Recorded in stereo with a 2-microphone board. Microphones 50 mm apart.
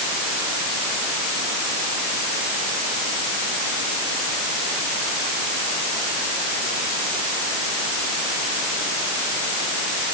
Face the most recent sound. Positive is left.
No sound to turn to.